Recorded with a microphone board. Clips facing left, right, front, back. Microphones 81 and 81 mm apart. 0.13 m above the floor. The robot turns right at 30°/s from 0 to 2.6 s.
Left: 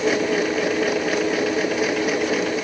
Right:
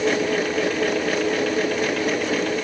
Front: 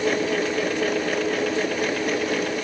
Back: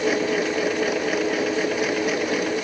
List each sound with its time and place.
Only background noise.